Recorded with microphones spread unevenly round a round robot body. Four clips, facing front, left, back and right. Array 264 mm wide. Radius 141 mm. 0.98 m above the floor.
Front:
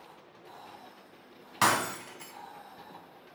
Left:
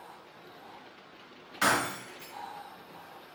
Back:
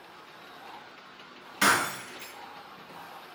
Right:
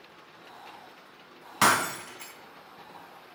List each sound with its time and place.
1.6 s breaking glass: 65° right, 2.5 m